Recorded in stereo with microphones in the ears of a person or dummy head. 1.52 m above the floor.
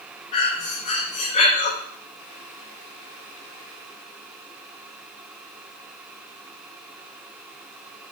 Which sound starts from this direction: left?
Breathing, at 0.3 s.